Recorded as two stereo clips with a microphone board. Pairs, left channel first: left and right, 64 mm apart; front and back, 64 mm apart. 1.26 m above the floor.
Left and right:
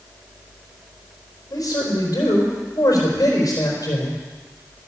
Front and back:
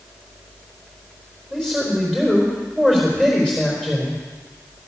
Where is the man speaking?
75° left, 4 m.